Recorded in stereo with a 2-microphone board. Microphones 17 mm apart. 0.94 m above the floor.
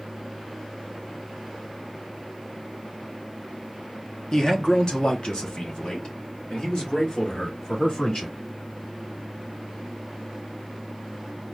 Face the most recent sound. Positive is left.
turn(degrees=65)  # may be behind; listen again after turning